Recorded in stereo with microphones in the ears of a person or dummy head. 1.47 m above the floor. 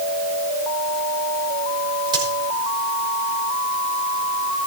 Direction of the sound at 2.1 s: 25° right (ahead or behind).